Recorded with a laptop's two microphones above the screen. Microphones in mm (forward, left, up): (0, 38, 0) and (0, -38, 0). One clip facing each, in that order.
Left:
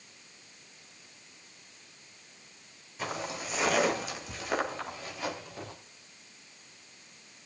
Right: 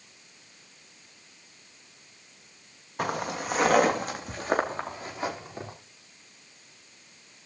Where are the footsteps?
60° right (ahead or behind), 3 m; by 5.7 s 25° right (ahead or behind), 4.5 m.